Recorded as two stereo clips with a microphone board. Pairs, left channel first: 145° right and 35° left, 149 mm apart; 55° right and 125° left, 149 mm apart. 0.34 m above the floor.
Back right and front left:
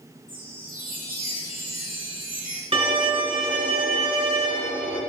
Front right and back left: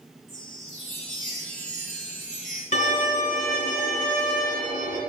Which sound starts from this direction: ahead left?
A chime, at 0.3 s.